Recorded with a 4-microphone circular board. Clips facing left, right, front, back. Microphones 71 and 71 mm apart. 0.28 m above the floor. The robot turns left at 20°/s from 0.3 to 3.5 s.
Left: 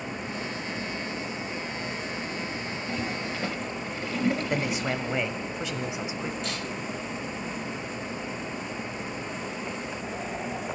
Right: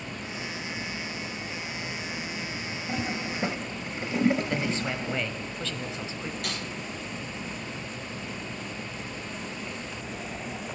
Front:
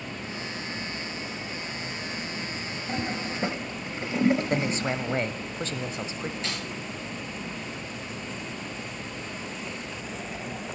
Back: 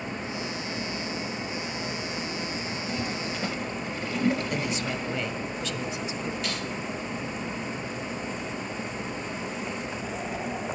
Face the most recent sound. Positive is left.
turn(degrees=-65)